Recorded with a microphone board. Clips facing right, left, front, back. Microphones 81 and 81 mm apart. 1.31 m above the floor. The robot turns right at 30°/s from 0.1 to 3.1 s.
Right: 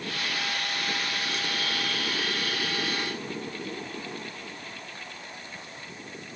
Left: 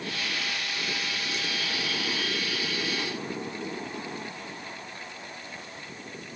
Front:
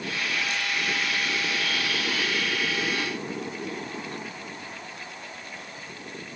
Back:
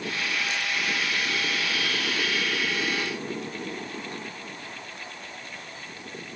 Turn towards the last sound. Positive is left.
No sound to turn to.